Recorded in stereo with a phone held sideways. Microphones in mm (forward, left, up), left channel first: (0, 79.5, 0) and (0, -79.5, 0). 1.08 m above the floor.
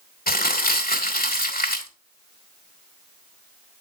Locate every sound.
0.3 s crumpling: 70° left (ahead or behind), 1.9 m